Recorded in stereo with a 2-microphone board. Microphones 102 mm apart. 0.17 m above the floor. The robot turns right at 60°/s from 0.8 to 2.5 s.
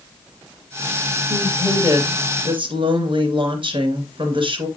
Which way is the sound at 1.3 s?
160° right.